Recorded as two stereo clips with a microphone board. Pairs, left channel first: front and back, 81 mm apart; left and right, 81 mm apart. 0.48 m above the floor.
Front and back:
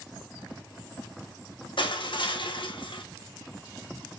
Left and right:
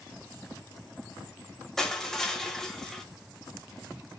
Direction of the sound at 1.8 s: 5° left.